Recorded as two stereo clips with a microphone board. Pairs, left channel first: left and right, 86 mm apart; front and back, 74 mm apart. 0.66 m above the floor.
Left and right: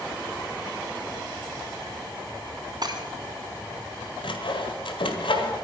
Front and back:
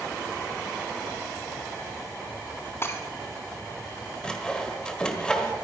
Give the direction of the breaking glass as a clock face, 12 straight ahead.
2 o'clock.